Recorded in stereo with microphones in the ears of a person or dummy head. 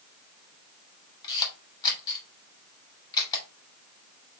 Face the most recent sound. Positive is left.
turn(degrees=20)  # may be behind; listen again after turning